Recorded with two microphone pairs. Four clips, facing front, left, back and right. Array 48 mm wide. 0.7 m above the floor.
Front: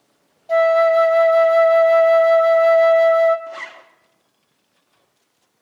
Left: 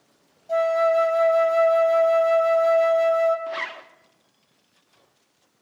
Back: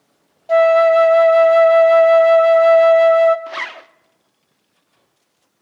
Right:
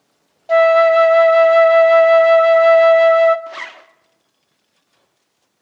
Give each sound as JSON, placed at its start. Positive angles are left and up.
{"t": 0.5, "sound": "a flute", "azimuth_deg": -105, "distance_m": 0.7}
{"t": 3.5, "sound": "a zipper", "azimuth_deg": 180, "distance_m": 0.6}